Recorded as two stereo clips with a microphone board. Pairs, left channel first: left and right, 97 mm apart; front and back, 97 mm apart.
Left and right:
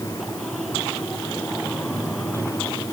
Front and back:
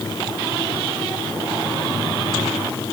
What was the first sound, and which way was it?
Only background noise.